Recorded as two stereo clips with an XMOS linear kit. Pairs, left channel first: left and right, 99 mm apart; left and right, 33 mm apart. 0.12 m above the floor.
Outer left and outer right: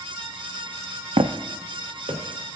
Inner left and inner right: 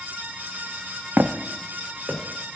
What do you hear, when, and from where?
1.2 s footsteps: 85° right, 0.5 m; by 2.6 s 75° right (ahead or behind), 1.4 m